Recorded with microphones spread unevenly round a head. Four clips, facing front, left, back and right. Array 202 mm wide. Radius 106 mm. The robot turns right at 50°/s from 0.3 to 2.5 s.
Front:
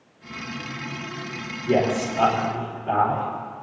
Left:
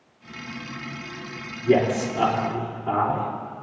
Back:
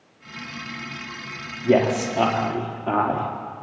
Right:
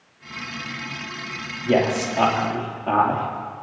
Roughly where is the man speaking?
Behind.